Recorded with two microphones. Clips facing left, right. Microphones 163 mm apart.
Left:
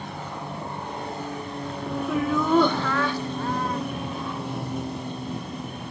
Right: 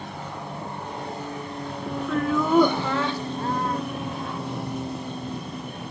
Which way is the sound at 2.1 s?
10° left (ahead or behind).